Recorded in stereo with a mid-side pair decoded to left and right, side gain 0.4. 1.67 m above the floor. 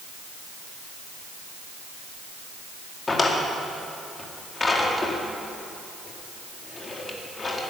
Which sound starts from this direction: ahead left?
A drawer, at 3.1 s.